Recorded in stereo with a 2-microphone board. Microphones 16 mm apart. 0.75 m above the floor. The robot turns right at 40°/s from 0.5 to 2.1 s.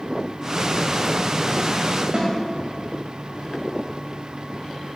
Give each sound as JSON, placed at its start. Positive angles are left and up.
{"t": 2.1, "sound": "a snare drum", "side_deg": -70, "distance_m": 2.5}